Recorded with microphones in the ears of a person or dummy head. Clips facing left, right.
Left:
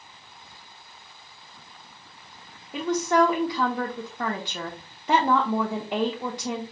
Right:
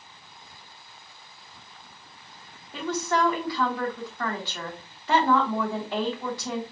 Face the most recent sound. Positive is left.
turn(degrees=10)  # may be behind; listen again after turning